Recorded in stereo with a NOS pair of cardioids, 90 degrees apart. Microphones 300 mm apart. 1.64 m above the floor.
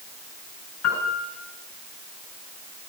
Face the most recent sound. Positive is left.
turn(degrees=55)